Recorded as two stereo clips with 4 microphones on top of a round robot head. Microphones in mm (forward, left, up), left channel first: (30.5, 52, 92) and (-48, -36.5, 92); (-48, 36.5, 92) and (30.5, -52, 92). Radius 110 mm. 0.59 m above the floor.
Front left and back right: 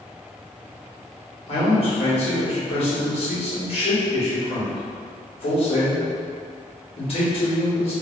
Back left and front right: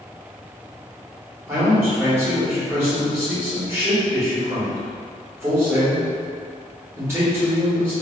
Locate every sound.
1.5 s a man speaking: 15° left, 1.9 m